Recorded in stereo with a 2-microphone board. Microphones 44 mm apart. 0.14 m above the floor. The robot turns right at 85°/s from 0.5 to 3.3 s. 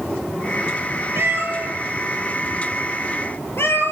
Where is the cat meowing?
70° right (ahead or behind), 1.3 m; by 3.9 s 70° left (ahead or behind), 1.3 m.